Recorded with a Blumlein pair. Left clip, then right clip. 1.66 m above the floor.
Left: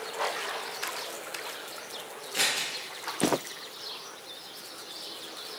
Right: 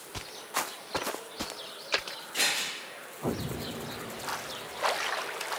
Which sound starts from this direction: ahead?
Scissors, at 2.3 s.